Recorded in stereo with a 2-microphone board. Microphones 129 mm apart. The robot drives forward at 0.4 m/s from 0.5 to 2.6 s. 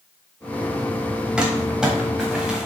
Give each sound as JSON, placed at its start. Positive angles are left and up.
{"t": 1.4, "sound": "crumpling", "side_deg": -5, "distance_m": 1.0}